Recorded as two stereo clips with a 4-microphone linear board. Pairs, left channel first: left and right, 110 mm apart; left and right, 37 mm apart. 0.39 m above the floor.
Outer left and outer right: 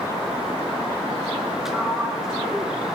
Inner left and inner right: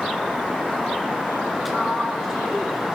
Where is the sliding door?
5° right (ahead or behind), 2.5 m.